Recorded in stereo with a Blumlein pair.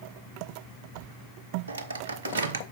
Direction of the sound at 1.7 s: 70° right.